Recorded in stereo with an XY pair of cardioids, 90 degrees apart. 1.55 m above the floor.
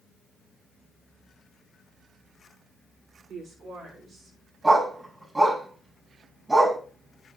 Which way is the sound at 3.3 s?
65° right.